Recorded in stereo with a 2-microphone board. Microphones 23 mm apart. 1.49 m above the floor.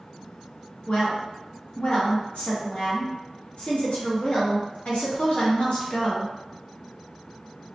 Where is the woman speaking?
60° left (ahead or behind), 1.0 m.